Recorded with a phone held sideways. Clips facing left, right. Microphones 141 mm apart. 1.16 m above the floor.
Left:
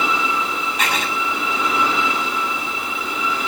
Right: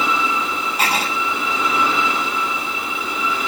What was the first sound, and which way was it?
Writing, 35° right (ahead or behind).